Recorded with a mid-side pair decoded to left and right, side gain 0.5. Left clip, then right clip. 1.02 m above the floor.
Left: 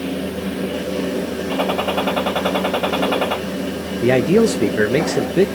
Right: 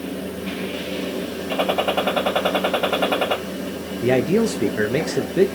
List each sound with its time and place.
0.0 s a fan: 35° left, 1.0 m
1.5 s a gunshot: 5° right, 2.5 m
4.0 s a man speaking: 25° left, 0.7 m